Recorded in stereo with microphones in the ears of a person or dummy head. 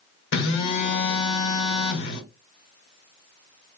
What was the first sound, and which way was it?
A phone buzzing, 65° left (ahead or behind).